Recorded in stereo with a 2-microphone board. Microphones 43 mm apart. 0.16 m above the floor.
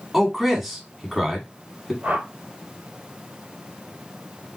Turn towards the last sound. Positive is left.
turn(degrees=-45)  # may be behind; listen again after turning